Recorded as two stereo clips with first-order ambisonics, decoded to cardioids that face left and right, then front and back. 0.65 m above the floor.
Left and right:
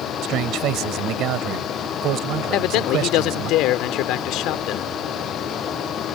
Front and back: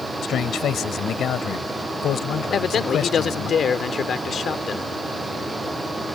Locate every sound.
0.2 s a man speaking: 55° right
2.5 s a man speaking: 60° left